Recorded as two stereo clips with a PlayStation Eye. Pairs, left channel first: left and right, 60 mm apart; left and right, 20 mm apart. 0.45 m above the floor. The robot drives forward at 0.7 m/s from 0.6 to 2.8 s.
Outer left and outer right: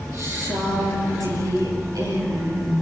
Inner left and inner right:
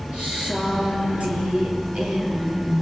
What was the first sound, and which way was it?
A woman speaking, 70° right (ahead or behind).